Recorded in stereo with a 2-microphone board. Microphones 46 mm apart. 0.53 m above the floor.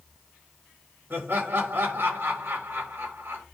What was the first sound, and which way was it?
Laughter, 55° right (ahead or behind).